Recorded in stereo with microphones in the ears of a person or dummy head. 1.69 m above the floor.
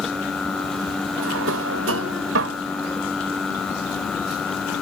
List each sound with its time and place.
1.2 s a drawer: 75° right (ahead or behind)